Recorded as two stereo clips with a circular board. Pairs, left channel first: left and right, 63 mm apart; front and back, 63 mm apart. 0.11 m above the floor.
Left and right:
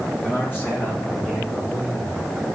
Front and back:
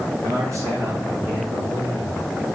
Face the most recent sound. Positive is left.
turn(degrees=155)